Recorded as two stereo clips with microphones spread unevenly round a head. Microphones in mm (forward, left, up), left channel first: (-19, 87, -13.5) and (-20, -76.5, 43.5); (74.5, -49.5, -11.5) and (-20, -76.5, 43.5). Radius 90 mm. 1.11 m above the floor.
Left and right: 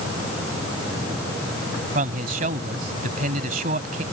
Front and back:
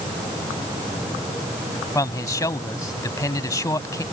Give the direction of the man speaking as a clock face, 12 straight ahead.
1 o'clock.